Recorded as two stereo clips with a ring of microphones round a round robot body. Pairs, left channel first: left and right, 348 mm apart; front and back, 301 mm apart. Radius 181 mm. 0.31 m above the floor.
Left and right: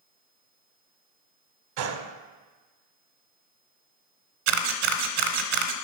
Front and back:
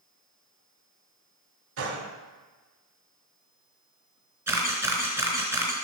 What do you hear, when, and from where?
1.8 s a gunshot: 130° right, 1.1 m
4.5 s a camera shutter: 95° right, 0.8 m